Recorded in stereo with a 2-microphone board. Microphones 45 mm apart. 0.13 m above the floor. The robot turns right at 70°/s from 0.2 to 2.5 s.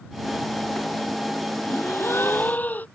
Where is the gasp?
85° left; by 2.9 s 140° left.